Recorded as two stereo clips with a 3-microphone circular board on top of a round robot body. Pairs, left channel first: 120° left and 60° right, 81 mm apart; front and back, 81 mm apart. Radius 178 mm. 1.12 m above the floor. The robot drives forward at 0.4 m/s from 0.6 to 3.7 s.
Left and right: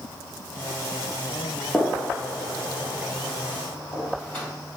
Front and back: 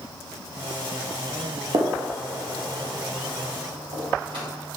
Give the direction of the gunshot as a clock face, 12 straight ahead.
5 o'clock.